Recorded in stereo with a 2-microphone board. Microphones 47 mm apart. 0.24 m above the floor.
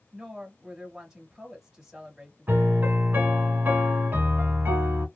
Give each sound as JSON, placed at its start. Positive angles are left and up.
{"t": 0.1, "sound": "a woman speaking", "side_deg": -15, "distance_m": 1.3}
{"t": 2.5, "sound": "a piano", "side_deg": -45, "distance_m": 1.1}